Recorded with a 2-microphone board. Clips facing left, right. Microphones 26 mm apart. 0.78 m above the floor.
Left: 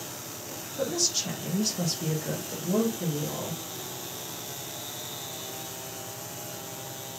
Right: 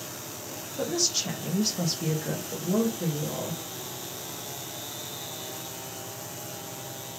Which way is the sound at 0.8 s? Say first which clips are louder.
Right 1 dB; 5° right (ahead or behind).